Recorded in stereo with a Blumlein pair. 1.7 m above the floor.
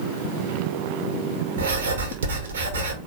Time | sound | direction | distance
1.6 | writing | 65° right | 2 m